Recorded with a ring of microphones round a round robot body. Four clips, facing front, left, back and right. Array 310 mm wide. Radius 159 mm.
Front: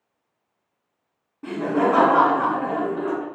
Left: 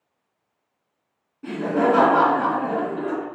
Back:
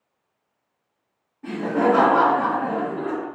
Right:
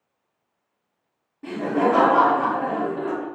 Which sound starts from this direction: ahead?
Laughter, at 1.4 s.